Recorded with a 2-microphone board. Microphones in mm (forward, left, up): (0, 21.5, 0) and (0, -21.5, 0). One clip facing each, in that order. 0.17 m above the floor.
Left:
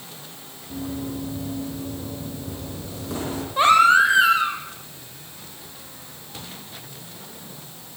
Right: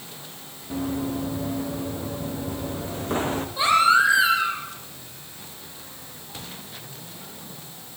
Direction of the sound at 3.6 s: 50° left (ahead or behind).